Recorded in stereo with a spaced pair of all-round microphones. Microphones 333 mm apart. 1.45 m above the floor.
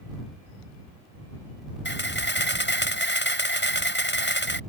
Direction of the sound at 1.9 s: 35° left (ahead or behind).